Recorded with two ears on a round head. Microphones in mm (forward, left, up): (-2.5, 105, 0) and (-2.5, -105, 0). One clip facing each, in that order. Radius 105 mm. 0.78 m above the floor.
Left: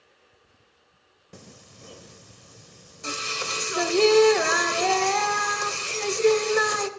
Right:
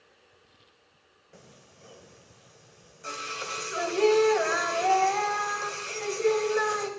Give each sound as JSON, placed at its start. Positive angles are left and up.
{"t": 1.3, "sound": "singing", "side_deg": 55, "distance_m": 0.8}